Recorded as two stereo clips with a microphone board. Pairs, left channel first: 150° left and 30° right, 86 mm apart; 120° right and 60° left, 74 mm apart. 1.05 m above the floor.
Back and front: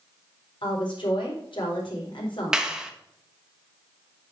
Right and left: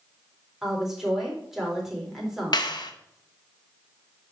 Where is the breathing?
I don't hear breathing.